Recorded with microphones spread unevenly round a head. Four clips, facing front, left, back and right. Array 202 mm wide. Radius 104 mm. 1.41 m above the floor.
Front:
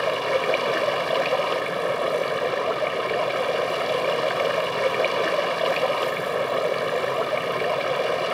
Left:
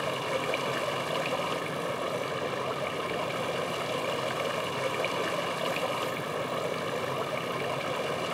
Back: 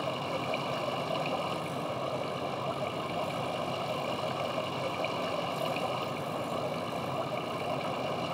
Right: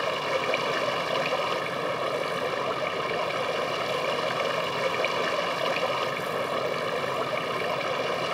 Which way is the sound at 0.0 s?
10° right.